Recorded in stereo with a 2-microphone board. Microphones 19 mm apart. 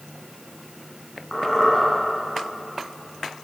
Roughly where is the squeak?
Left.